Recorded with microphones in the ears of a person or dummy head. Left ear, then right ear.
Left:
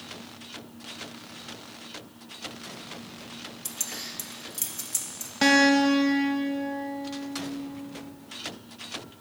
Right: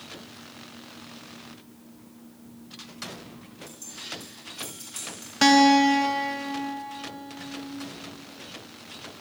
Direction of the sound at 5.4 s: 15° right (ahead or behind).